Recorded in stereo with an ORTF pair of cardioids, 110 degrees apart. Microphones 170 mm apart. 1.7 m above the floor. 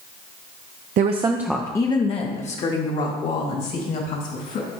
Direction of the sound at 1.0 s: 50° right.